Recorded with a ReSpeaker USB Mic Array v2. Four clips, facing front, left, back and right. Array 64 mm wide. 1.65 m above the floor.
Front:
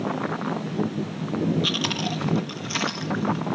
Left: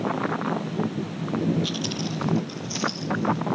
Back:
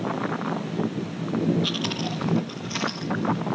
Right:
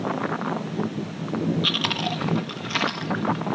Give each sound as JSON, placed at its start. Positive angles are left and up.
{"t": 1.6, "sound": "chewing", "azimuth_deg": -75}